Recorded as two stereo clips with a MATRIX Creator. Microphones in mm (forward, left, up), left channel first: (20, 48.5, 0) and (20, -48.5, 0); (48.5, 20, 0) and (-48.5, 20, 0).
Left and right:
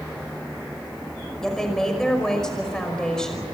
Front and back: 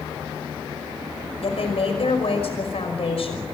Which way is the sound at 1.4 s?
10° left.